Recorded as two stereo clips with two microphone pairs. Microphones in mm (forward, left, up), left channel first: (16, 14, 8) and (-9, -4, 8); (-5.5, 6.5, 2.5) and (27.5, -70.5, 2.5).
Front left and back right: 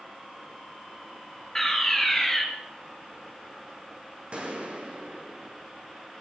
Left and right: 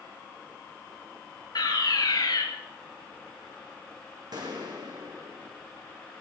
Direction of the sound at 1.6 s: 115° left.